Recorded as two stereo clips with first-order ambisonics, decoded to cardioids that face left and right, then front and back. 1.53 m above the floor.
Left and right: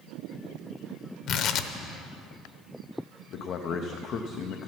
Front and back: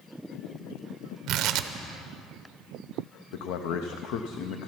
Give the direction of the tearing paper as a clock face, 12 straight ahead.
7 o'clock.